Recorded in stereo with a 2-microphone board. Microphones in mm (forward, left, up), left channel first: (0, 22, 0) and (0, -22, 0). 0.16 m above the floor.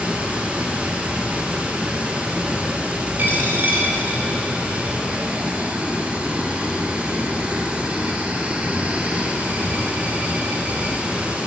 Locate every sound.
0.0 s running water: 25° right (ahead or behind), 0.9 m
3.2 s a dropped coin: 45° right (ahead or behind), 1.6 m